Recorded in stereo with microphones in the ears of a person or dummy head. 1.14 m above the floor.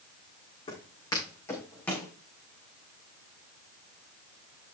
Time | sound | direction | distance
0.7 | footsteps | 30° left (ahead or behind) | 4 m